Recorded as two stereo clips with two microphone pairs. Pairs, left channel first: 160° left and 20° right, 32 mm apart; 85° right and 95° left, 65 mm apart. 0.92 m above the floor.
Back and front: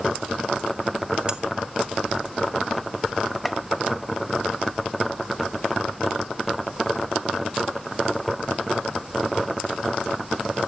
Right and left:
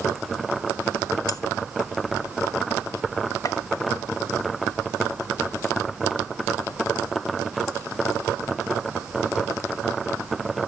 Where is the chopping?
110° right, 0.5 m.